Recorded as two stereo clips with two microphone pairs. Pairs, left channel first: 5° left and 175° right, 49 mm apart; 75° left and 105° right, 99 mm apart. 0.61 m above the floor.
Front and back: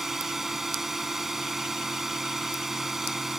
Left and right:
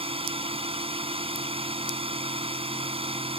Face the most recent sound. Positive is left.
turn(degrees=-90)